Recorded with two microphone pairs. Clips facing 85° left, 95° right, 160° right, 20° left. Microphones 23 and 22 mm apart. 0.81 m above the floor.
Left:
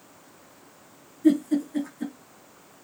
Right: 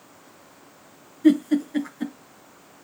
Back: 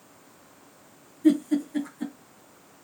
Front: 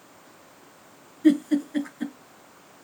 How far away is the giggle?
About 4.5 m.